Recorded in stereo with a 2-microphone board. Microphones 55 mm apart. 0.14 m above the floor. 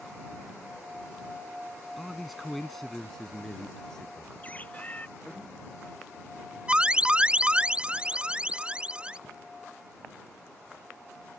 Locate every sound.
2.0 s a man speaking: 5° right (ahead or behind); by 5.4 s 15° left (ahead or behind)
4.4 s a bird: 25° left (ahead or behind)
6.7 s an alarm: 20° right (ahead or behind)